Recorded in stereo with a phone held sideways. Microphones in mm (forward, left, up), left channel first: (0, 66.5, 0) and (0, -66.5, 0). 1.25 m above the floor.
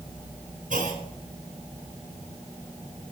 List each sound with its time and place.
0.7 s a clunk: 80° right, 2.5 m